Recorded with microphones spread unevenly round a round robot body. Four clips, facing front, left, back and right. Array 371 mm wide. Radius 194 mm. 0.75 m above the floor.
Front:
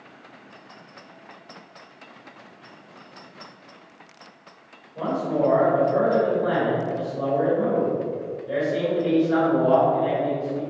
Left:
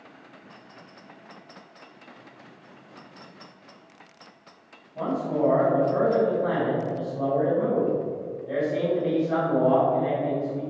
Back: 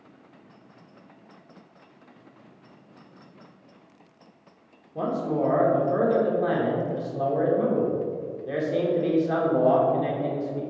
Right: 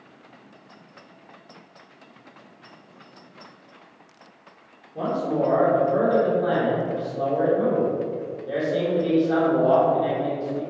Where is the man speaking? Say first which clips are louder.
Right 2 dB, front 2 dB; 170° right, 2.5 m.